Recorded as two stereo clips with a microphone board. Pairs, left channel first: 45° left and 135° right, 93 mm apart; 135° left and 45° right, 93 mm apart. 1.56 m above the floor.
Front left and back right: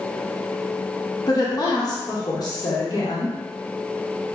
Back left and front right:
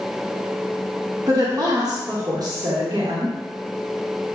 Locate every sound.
1.3 s a woman speaking: straight ahead, 1.0 m